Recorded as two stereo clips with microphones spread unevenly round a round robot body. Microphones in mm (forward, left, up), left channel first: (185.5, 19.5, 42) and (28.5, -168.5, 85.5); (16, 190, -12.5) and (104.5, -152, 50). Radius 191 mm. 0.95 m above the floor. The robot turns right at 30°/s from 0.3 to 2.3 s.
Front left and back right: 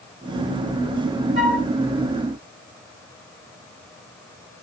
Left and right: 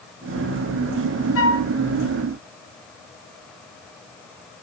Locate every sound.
1.4 s a flute: 160° left, 1.3 m; by 1.7 s 170° left, 1.3 m